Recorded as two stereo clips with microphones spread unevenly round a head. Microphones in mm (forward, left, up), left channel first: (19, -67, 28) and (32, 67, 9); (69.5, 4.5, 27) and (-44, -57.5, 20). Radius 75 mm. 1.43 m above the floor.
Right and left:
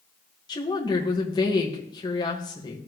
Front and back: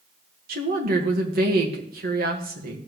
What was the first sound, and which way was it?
A woman speaking, 160° right.